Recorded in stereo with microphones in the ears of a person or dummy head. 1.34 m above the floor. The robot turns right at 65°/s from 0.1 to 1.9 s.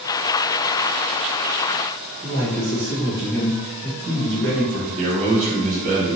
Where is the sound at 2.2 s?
60° right (ahead or behind), 1.8 m.